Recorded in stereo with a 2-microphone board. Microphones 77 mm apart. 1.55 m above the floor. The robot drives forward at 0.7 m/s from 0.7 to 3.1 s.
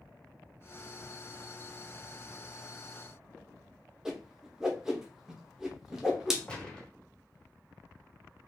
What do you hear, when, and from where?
4.0 s a whoosh: 5° right (ahead or behind), 0.8 m
6.5 s a gunshot: 10° left (ahead or behind), 1.1 m